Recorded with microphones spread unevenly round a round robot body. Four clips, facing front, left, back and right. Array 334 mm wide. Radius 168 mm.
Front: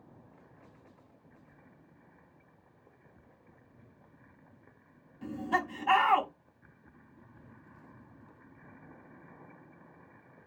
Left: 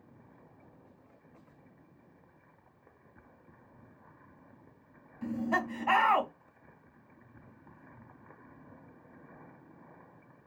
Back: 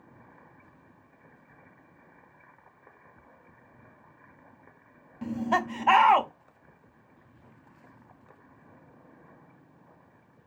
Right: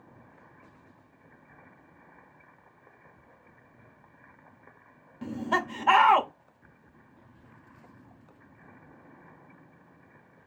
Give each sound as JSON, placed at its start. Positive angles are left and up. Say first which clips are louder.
{"t": 5.2, "sound": "laughter", "louder": "right 2 dB, back 5 dB", "azimuth_deg": -135, "distance_m": 1.5}